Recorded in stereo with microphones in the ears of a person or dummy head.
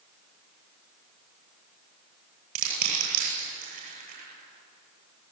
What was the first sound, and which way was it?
Crushing, 50° right (ahead or behind).